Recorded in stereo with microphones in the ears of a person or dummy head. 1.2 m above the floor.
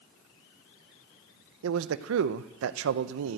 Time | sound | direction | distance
1.6 | a man speaking | 65° right (ahead or behind) | 0.7 m